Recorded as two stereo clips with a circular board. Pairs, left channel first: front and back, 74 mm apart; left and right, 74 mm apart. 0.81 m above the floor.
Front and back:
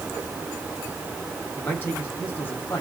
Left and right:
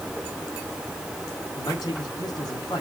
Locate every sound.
1.6 s a man speaking: 60° left, 4 m